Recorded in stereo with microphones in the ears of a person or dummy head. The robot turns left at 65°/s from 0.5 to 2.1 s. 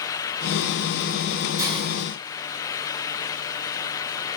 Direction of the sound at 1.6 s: 10° right (ahead or behind).